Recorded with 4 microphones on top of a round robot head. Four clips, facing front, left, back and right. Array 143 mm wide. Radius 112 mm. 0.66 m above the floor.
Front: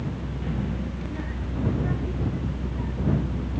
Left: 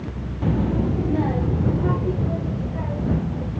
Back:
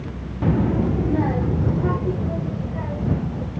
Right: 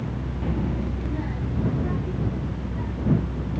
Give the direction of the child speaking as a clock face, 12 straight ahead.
6 o'clock.